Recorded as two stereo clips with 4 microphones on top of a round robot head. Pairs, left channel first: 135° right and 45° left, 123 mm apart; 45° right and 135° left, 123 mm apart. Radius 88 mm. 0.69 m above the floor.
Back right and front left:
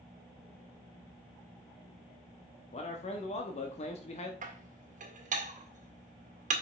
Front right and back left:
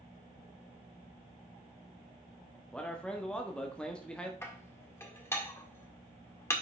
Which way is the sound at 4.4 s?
25° left.